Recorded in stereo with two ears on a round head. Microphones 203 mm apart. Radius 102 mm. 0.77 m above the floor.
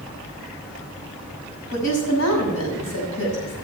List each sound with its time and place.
1.7 s a woman speaking: 75° left (ahead or behind), 6 m